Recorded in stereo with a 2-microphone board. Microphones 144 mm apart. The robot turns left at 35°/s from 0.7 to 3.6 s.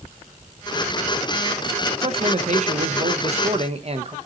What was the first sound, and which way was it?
A man speaking, 60° right.